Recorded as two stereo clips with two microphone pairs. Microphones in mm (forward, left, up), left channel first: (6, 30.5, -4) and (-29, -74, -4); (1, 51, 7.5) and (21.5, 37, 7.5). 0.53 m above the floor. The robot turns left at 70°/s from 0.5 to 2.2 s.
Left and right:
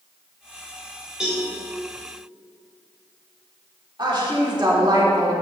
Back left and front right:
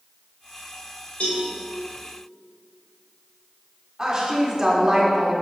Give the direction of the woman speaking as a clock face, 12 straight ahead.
3 o'clock.